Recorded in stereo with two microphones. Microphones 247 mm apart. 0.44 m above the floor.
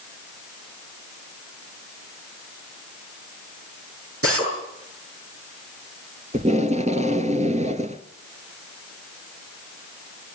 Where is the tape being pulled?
30° right (ahead or behind), 1.3 m.